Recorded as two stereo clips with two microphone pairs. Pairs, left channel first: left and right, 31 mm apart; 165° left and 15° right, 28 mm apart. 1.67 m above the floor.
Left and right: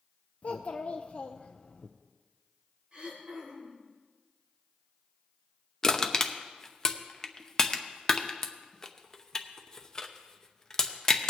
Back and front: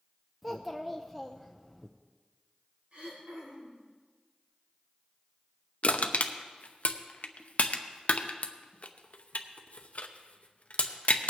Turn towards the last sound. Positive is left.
turn(degrees=160)